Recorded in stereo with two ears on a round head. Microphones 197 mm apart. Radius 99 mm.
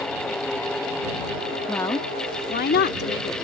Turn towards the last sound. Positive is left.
turn(degrees=55)  # may be behind; listen again after turning